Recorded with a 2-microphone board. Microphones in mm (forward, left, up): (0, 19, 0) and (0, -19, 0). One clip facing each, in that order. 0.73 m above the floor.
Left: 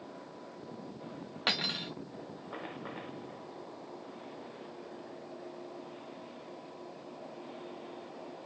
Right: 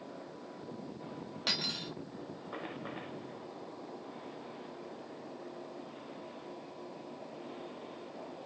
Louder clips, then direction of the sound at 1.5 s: Left 4 dB; 30° left (ahead or behind).